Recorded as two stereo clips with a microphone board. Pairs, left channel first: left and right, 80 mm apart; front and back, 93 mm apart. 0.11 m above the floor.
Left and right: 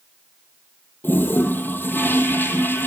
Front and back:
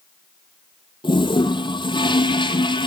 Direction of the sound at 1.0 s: 25° left.